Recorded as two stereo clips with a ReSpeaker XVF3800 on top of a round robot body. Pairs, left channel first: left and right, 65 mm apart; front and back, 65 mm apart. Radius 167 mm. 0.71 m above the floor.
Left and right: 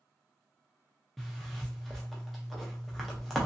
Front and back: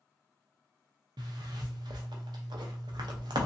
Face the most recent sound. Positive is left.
turn(degrees=180)